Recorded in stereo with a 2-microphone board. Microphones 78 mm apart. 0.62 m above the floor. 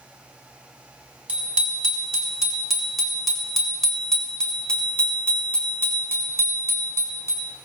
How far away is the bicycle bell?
About 5 m.